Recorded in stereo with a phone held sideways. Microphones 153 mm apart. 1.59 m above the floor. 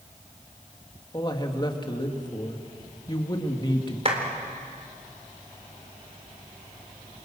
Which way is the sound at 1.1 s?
30° left (ahead or behind).